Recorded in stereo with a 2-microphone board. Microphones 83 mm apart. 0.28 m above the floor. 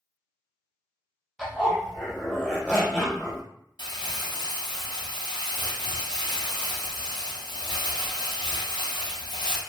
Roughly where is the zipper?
Centre.